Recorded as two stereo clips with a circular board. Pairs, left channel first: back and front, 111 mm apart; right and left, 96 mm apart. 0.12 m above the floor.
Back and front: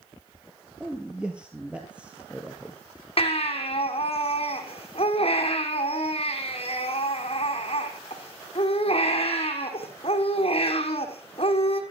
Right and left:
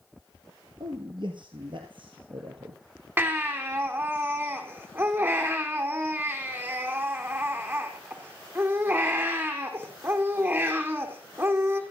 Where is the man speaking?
80° left, 3 m.